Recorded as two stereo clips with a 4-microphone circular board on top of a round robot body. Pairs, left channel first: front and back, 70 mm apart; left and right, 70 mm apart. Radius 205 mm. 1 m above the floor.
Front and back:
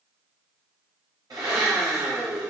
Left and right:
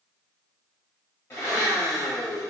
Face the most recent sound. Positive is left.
turn(degrees=150)